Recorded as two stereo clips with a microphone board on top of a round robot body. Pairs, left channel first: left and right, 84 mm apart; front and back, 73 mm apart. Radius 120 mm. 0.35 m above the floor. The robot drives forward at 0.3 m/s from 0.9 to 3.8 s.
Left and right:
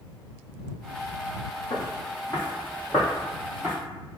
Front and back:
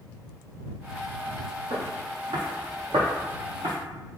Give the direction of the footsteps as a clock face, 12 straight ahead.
7 o'clock.